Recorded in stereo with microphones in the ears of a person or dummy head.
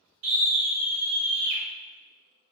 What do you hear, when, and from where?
0.2 s a scream: 85° right, 4 m; by 1.6 s 70° right (ahead or behind), 4 m